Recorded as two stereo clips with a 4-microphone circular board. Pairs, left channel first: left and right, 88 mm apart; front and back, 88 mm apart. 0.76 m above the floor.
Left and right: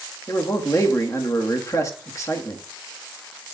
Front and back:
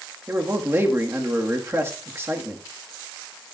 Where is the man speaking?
125° left, 1.3 m.